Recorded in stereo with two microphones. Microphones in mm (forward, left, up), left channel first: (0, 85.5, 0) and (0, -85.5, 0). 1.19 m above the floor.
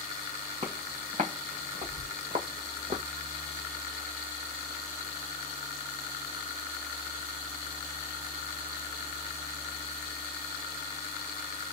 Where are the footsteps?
45° right (ahead or behind), 4 m.